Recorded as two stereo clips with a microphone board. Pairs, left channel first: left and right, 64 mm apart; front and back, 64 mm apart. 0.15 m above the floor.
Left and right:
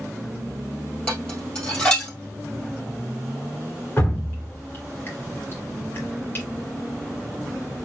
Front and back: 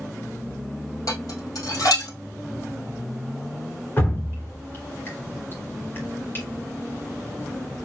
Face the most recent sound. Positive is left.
turn(degrees=45)